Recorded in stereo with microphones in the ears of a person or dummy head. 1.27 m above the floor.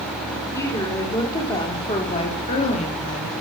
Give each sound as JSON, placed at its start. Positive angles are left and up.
{"t": 0.5, "sound": "a woman speaking", "side_deg": 15, "distance_m": 4.0}